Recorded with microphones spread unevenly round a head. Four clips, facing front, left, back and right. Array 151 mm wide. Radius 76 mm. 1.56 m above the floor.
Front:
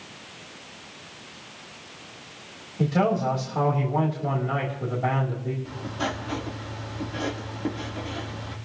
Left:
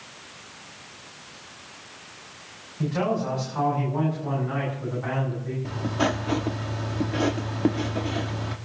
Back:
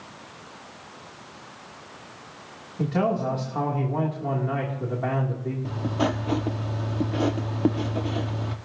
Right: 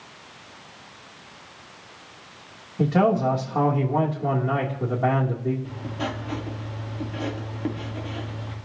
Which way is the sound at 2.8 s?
105° right.